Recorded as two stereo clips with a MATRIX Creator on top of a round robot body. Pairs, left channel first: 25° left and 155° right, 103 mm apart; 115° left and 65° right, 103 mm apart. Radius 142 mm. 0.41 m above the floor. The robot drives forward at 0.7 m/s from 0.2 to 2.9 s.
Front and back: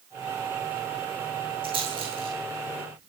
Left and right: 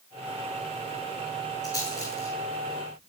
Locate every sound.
1.6 s a rattle: 175° left, 7 m